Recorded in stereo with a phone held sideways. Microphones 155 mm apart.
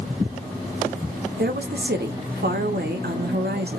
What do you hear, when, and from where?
1.4 s a woman speaking: 85° right, 1.2 m